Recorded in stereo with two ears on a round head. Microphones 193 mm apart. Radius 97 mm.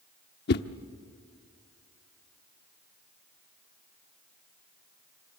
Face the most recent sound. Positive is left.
turn(degrees=50)  # may be behind; listen again after turning